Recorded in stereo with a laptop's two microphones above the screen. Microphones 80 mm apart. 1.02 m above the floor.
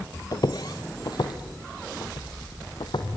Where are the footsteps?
55° left (ahead or behind), 1.6 m; by 3.1 s 70° left (ahead or behind), 3 m.